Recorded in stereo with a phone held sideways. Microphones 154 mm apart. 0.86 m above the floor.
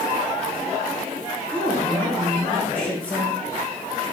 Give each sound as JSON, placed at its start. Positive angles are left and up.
{"t": 1.5, "sound": "a woman speaking", "side_deg": 10, "distance_m": 3.5}